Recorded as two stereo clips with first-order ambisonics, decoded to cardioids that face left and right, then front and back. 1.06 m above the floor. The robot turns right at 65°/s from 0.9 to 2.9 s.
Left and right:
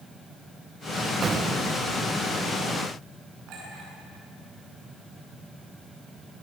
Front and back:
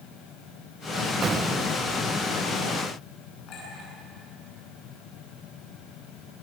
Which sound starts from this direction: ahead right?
A clink, at 3.5 s.